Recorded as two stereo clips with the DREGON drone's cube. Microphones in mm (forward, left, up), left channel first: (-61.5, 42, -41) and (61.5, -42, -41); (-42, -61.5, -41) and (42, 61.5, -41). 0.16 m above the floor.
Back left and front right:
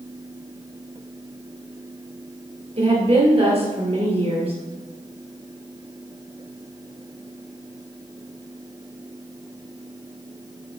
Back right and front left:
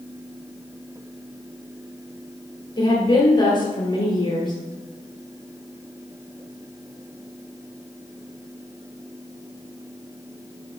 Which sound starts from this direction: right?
A woman speaking, at 2.8 s.